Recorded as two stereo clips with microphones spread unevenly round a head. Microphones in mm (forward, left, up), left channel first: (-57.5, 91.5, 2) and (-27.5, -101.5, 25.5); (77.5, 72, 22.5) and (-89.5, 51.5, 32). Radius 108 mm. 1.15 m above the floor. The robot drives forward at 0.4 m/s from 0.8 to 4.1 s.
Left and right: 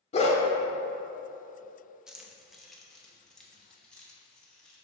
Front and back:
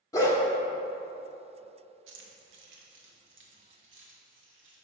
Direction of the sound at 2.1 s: 165° right.